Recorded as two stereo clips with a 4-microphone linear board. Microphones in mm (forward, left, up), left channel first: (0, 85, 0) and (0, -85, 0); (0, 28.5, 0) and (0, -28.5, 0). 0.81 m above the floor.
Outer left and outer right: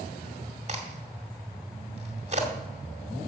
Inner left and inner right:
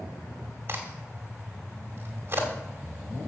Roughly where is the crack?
Right.